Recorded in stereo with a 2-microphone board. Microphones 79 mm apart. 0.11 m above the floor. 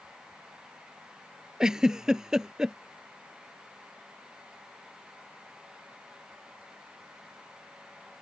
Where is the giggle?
10° right (ahead or behind).